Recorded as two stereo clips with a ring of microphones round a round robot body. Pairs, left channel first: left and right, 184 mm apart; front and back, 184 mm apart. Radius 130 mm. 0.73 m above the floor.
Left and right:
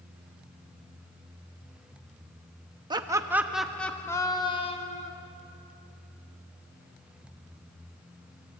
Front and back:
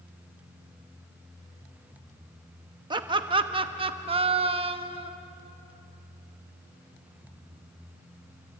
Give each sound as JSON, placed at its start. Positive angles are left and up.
{"t": 2.9, "sound": "laughter", "azimuth_deg": -135, "distance_m": 1.0}